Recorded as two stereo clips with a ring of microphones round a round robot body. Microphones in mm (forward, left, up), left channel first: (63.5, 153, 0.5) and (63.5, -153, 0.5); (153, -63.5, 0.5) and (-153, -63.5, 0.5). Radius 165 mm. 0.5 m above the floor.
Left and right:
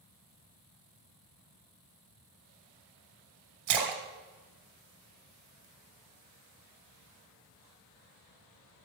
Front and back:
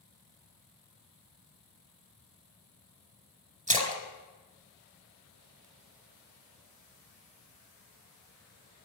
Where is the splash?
110° right, 1.6 m.